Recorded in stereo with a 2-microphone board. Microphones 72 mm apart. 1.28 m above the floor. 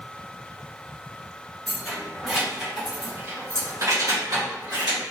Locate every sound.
1.7 s keys jangling: 5° left (ahead or behind), 1.3 m; by 5.0 s 70° right (ahead or behind), 1.1 m